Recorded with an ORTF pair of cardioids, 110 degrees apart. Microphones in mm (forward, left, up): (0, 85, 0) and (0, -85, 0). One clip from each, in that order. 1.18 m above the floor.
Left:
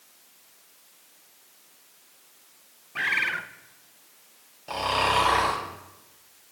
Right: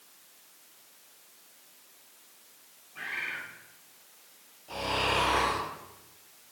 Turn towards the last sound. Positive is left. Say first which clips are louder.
# left 5 dB
turn(degrees=70)